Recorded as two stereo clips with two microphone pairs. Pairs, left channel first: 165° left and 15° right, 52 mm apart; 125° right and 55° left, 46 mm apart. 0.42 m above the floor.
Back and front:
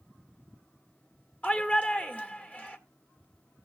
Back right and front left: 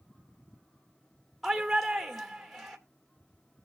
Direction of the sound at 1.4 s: 145° left.